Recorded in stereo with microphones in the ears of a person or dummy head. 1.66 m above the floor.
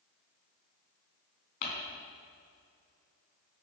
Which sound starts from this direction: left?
Crumpling, at 1.6 s.